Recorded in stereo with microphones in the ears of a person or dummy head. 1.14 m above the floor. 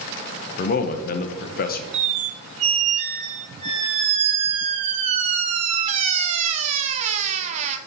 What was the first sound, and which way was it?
A man speaking, 45° left (ahead or behind).